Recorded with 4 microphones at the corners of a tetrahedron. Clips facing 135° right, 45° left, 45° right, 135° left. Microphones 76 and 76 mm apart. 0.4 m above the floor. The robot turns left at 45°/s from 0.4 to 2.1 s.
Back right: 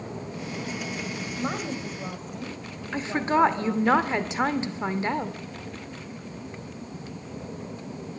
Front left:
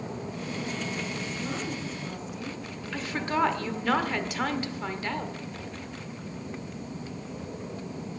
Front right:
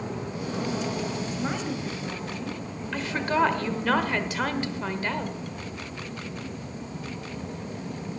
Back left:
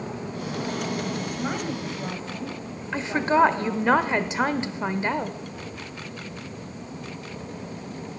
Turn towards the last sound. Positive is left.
turn(degrees=180)